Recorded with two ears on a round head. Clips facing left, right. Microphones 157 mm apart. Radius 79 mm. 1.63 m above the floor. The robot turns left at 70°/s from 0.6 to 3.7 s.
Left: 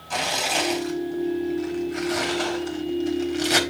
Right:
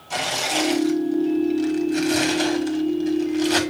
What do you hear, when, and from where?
0.1 s tearing paper: 5° right (ahead or behind), 1.2 m; by 3.6 s 20° left (ahead or behind), 1.2 m